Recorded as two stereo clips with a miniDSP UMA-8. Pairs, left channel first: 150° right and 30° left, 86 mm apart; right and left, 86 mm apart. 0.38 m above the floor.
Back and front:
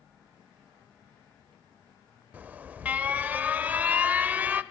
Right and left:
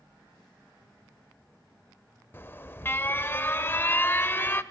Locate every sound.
2.3 s an alarm: 35° right, 0.7 m